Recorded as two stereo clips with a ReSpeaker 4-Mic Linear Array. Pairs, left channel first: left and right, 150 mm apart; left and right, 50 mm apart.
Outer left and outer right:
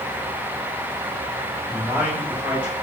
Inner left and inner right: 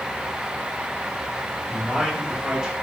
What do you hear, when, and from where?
1.7 s a man speaking: 10° right (ahead or behind), 5.5 m